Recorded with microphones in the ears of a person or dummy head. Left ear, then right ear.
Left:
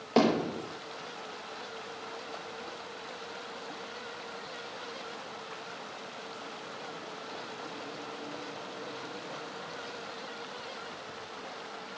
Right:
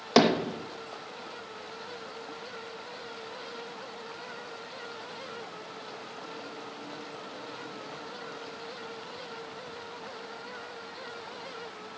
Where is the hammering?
55° right (ahead or behind), 1.1 m.